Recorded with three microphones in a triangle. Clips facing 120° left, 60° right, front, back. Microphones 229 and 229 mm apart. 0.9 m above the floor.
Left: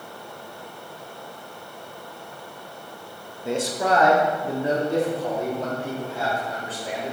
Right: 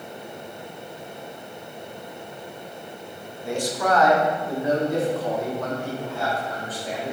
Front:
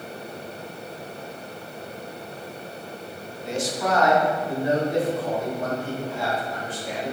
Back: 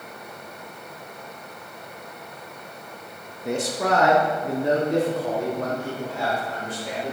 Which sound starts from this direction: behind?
A man speaking, at 3.5 s.